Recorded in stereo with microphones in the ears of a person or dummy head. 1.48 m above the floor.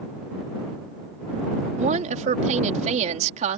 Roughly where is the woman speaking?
Right.